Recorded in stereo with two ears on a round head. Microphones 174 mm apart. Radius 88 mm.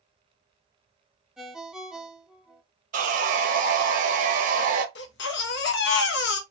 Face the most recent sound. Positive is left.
turn(degrees=60)  # may be behind; listen again after turning